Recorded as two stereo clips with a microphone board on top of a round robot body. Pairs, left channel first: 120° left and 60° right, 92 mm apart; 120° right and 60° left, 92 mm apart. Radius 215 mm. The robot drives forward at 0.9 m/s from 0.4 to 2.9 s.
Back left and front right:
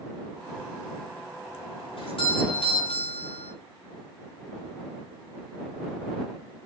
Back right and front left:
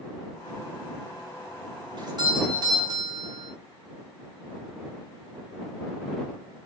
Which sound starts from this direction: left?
A doorbell, at 2.0 s.